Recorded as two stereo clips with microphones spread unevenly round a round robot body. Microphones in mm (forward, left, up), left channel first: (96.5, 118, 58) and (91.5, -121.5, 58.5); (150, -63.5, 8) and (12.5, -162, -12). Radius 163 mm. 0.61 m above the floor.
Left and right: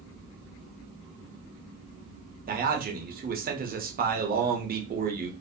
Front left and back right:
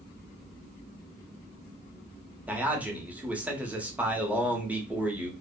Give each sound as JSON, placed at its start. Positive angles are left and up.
{"t": 2.5, "sound": "a man speaking", "azimuth_deg": -75, "distance_m": 0.8}